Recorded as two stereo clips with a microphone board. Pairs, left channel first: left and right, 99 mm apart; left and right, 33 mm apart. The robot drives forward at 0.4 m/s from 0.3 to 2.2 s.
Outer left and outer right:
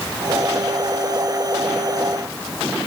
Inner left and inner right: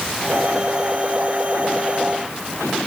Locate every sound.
Only background noise.